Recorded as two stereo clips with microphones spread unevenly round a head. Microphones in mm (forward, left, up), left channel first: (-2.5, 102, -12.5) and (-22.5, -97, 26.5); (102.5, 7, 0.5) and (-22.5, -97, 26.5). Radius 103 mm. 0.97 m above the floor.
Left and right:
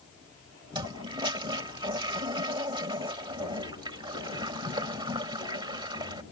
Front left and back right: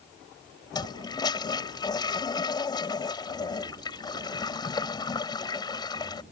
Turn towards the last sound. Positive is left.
turn(degrees=-25)